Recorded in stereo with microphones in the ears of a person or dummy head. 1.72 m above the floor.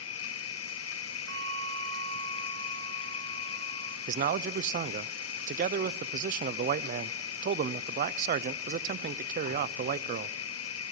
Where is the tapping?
No tapping in this recording.